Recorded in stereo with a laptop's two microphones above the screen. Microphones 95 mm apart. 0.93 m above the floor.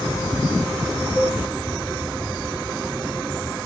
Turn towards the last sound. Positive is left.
turn(degrees=25)  # may be behind; listen again after turning